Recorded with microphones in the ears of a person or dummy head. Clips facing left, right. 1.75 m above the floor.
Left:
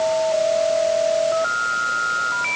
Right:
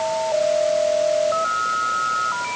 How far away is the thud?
I don't hear a thud.